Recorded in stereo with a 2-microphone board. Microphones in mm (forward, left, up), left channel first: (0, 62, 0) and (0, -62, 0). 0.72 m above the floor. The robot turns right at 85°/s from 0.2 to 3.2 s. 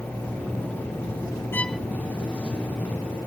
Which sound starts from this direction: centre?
A violin, at 1.5 s.